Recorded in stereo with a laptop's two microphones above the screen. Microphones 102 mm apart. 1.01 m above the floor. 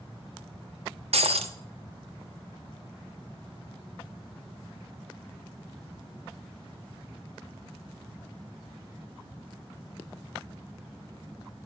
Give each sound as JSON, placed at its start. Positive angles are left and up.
{"t": 1.1, "sound": "breaking glass", "side_deg": -80, "distance_m": 1.0}